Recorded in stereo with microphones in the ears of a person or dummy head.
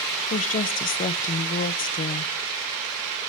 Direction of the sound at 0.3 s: 40° left (ahead or behind).